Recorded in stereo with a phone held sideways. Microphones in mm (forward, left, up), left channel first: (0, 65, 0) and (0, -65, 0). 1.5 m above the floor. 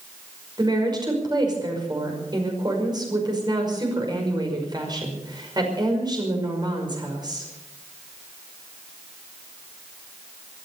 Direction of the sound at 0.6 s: 35° right (ahead or behind).